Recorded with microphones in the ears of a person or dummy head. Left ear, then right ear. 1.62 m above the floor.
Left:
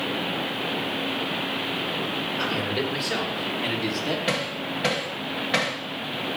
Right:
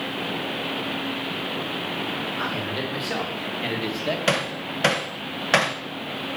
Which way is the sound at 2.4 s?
5° right (ahead or behind).